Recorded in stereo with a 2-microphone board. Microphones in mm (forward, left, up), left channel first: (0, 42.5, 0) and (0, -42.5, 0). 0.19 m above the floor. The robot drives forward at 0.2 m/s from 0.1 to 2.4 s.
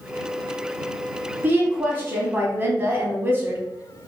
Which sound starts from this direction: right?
A woman speaking, at 1.4 s.